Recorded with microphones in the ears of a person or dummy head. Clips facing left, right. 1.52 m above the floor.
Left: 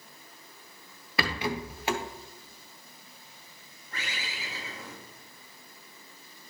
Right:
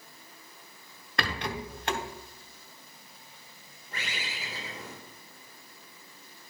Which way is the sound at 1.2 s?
5° left (ahead or behind).